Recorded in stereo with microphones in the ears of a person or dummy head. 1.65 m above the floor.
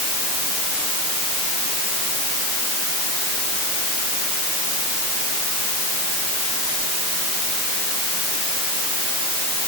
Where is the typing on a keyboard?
No typing on a keyboard in this recording.